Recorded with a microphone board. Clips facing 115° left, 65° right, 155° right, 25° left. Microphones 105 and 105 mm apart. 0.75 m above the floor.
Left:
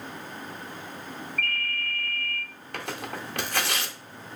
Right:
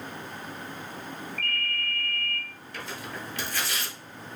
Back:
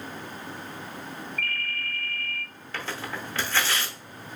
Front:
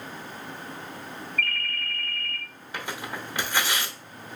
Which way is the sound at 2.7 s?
100° left.